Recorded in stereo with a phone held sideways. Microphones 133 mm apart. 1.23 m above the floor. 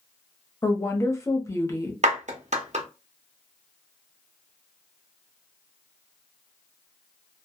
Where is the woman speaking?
25° left (ahead or behind), 0.8 m.